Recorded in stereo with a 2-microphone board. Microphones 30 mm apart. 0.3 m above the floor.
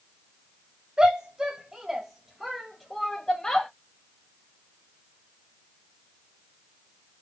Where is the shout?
30° right (ahead or behind), 1.6 m; by 3.7 s 30° left (ahead or behind), 1.2 m.